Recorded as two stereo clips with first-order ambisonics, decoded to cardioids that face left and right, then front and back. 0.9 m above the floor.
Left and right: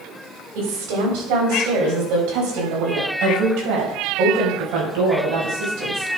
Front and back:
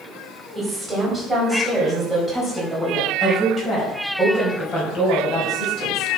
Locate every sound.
0.6 s a woman speaking: 100° right, 4.5 m; by 6.1 s 55° right, 5.5 m